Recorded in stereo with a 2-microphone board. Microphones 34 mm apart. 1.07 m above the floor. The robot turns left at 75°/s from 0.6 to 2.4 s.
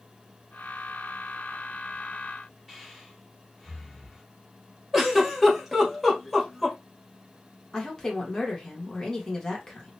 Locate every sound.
2.7 s breathing: 10° right (ahead or behind), 1.8 m
4.9 s a giggle: centre (ahead or behind), 1.2 m
7.7 s a woman speaking: 20° left (ahead or behind), 1.3 m